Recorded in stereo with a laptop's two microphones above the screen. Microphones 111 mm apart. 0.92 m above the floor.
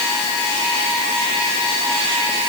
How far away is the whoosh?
No whoosh in this recording.